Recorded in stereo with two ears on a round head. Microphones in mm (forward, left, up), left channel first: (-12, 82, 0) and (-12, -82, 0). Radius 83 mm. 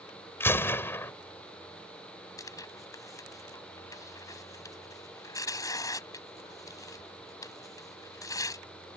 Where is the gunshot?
15° left (ahead or behind).